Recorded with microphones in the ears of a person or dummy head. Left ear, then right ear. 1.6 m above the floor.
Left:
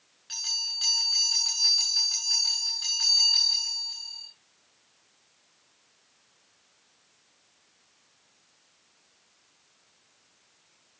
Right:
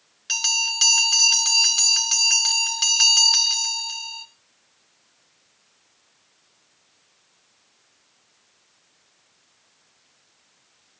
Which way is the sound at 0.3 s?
45° right (ahead or behind).